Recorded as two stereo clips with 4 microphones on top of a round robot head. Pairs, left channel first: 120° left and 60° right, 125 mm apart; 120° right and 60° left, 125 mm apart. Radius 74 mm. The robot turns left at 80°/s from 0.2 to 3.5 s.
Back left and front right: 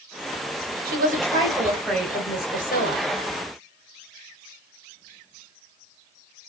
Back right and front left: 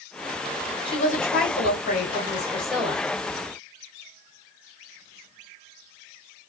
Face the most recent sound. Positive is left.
turn(degrees=85)